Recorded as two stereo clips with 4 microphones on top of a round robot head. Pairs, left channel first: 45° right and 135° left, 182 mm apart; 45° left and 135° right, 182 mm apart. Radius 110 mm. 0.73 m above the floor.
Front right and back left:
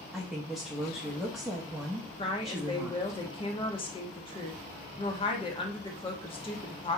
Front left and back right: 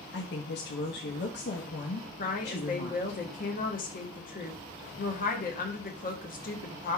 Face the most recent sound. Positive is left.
turn(degrees=10)